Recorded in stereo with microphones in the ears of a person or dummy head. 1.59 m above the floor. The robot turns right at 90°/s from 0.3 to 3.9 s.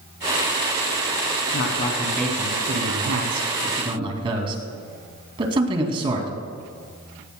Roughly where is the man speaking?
Behind left.